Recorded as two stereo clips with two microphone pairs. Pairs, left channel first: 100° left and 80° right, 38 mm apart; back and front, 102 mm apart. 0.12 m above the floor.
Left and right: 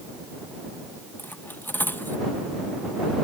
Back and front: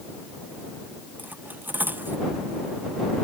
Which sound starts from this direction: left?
Cutlery clinking, at 1.2 s.